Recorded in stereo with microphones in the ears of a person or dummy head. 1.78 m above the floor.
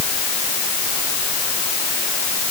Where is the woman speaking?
No woman speaking in this recording.